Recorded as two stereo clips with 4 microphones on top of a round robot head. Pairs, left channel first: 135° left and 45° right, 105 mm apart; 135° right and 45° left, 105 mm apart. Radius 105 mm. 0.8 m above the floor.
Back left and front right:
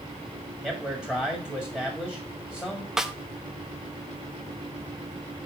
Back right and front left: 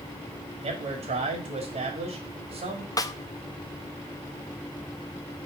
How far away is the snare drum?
About 0.7 m.